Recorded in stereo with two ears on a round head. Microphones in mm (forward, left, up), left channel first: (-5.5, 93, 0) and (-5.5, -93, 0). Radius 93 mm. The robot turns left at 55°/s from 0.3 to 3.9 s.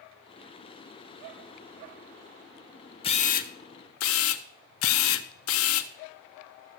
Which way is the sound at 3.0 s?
155° left.